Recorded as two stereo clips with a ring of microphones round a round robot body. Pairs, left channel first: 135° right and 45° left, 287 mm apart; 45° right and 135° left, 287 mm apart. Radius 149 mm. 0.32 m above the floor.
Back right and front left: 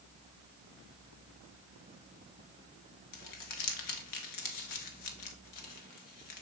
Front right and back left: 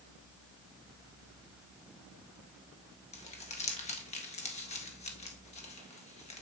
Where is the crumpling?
115° right, 1.4 m.